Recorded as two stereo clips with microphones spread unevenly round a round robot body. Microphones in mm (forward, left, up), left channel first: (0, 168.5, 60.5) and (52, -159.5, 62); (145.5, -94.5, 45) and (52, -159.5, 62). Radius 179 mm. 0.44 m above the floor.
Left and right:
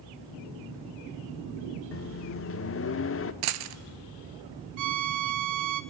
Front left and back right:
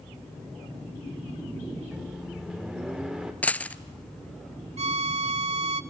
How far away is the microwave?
About 0.8 m.